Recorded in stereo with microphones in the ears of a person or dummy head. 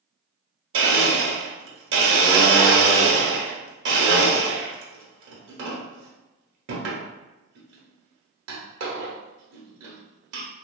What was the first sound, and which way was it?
A blender, 65° right (ahead or behind).